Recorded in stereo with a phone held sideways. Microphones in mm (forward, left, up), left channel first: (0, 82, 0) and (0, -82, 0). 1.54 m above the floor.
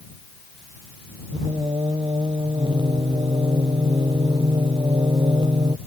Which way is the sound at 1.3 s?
30° right (ahead or behind).